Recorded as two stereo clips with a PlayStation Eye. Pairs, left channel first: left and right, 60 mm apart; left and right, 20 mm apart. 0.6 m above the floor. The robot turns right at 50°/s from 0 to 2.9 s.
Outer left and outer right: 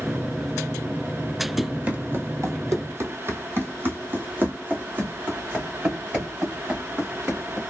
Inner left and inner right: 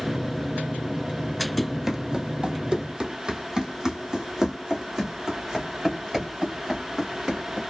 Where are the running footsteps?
5° right (ahead or behind), 0.9 m; by 7.6 s 20° right (ahead or behind), 3 m.